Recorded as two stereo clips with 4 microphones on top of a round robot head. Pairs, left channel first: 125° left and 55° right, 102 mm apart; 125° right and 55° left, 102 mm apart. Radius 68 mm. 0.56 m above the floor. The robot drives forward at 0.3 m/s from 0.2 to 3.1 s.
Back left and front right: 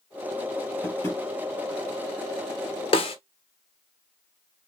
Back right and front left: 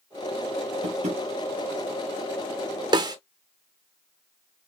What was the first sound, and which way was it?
Tapping, 60° left.